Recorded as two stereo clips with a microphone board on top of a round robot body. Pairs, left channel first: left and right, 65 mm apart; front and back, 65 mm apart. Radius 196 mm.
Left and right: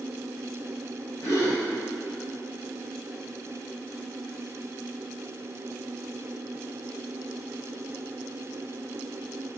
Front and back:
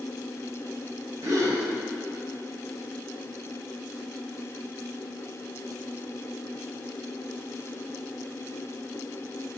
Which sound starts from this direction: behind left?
A gasp, at 1.2 s.